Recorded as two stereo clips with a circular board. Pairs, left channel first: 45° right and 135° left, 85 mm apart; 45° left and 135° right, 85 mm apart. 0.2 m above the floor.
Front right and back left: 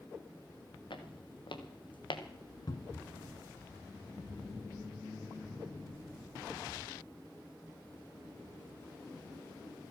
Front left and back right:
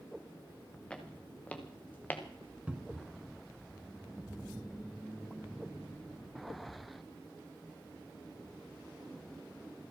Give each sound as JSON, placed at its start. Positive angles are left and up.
{"t": 0.9, "sound": "footsteps", "azimuth_deg": -35, "distance_m": 3.5}
{"t": 2.7, "sound": "a cupboard door", "azimuth_deg": -60, "distance_m": 0.7}